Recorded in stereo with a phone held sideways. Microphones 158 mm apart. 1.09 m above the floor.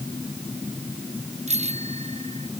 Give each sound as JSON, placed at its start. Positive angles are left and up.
{"t": 1.5, "sound": "a bicycle bell", "side_deg": -45}